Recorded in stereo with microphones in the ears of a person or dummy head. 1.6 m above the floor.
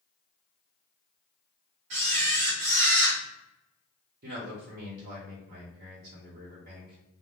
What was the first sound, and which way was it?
A camera shutter, 40° right (ahead or behind).